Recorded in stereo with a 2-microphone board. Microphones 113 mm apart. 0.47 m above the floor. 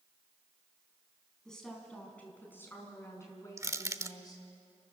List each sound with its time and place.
1.4 s a woman speaking: 5° left (ahead or behind), 5 m; by 4.4 s 35° left (ahead or behind), 6.5 m
3.6 s crushing: 30° right (ahead or behind), 0.7 m